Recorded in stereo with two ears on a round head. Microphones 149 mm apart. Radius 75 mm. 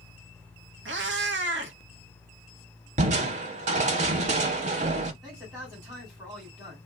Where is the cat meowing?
85° right, 0.8 m.